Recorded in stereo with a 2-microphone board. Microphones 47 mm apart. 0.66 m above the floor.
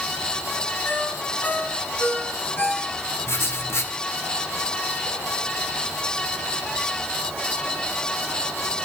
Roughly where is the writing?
Left.